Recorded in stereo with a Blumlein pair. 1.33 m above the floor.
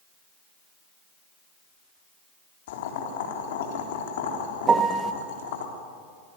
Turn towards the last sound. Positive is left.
turn(degrees=-20)